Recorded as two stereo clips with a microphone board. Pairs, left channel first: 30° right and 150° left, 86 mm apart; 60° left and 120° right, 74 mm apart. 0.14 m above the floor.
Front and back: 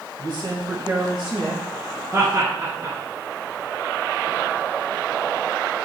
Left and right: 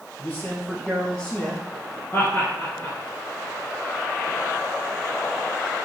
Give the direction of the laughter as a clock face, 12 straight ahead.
8 o'clock.